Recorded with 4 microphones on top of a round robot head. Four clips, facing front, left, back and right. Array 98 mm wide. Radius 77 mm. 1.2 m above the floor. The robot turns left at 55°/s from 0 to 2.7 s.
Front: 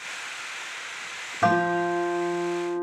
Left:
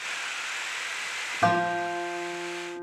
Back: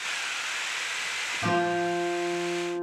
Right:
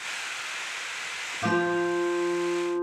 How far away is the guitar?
About 5.5 m.